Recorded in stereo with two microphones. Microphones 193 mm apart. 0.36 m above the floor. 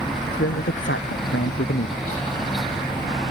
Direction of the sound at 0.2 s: 75° left (ahead or behind).